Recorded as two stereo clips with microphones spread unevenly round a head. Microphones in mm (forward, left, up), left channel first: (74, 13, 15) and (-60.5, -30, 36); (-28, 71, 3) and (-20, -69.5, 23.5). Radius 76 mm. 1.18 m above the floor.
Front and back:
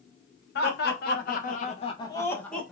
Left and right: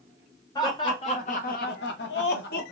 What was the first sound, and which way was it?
Laughter, 25° left.